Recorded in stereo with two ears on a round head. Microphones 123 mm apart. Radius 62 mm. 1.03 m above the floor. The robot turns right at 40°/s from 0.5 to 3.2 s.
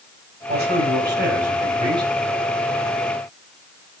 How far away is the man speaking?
About 7 m.